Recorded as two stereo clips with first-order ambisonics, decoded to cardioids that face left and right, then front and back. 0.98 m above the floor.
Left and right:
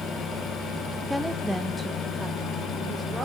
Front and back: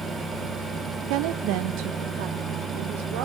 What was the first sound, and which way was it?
A woman speaking, 175° left.